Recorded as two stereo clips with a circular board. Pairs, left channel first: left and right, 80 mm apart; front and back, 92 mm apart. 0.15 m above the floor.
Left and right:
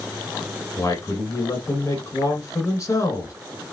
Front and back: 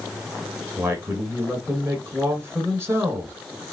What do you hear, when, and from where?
0.8 s a man speaking: 125° left, 2 m